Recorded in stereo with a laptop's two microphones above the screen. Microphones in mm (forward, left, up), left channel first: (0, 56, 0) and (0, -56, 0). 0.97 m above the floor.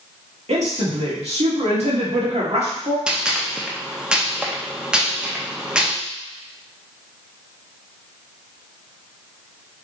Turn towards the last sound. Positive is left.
turn(degrees=-10)  # may be behind; listen again after turning